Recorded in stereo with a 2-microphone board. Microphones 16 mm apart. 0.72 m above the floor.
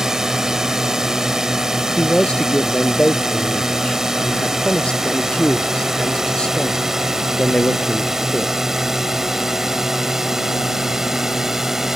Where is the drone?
40° right (ahead or behind); by 12.0 s 30° right (ahead or behind).